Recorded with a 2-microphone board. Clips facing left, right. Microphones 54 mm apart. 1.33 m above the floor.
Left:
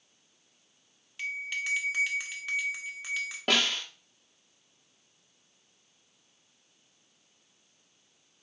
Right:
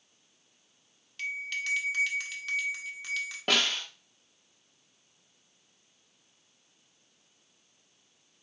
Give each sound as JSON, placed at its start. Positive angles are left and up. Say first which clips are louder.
{"t": 1.2, "sound": "a bell", "louder": "even", "side_deg": 10, "distance_m": 1.0}
{"t": 3.5, "sound": "a snare drum", "louder": "even", "side_deg": 0, "distance_m": 1.1}